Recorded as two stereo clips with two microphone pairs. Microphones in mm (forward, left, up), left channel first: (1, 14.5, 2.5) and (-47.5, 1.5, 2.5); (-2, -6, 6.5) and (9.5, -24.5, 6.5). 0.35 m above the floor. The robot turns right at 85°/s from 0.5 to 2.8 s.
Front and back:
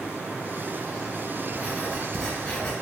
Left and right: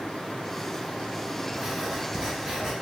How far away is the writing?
About 0.9 m.